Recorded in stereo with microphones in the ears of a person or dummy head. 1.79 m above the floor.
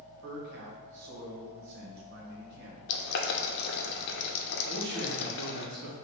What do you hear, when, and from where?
0.2 s a man speaking: 60° right (ahead or behind), 1.4 m
2.9 s boiling: 60° left (ahead or behind), 0.7 m
4.7 s a man speaking: 25° right (ahead or behind), 1.2 m